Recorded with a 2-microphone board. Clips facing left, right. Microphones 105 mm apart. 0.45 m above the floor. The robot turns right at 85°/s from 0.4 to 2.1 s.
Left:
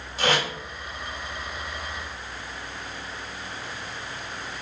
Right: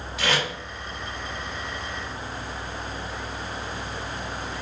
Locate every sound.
0.2 s tape being pulled: 35° left (ahead or behind), 2.5 m; by 0.5 s 30° left (ahead or behind), 2.5 m